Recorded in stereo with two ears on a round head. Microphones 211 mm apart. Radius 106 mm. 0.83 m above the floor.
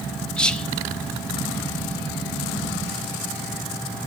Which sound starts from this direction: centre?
Whispering, at 0.4 s.